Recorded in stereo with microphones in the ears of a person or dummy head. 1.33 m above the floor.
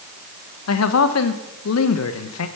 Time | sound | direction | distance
0.7 | a man speaking | 85° left | 1.1 m